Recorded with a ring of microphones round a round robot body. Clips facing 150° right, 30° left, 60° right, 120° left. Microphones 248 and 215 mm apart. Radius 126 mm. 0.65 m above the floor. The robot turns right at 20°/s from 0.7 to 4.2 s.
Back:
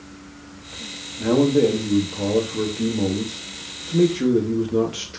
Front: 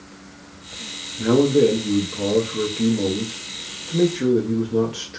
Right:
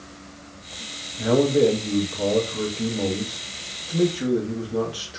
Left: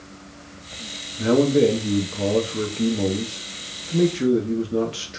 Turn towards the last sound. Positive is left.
turn(degrees=140)